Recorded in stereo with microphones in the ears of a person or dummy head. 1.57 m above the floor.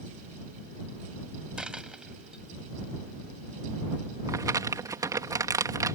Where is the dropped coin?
Centre (ahead or behind).